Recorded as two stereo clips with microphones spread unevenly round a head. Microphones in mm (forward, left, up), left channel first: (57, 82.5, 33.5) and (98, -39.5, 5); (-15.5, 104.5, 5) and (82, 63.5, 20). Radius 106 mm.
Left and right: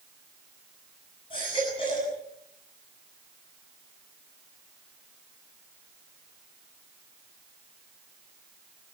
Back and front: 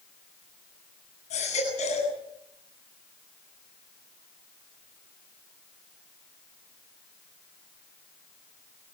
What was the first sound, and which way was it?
A baby crying, 175° left.